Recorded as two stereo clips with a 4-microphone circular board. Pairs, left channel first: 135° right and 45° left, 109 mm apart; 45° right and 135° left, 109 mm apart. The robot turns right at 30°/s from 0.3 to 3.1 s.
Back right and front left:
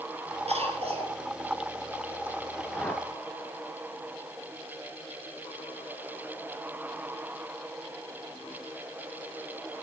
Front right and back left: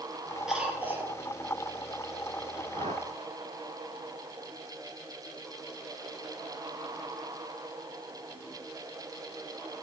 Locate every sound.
0.5 s a cough: 50° left, 5 m; by 1.2 s 70° left, 5 m
2.7 s a whoosh: 145° left, 1.3 m; by 3.1 s 155° left, 1.3 m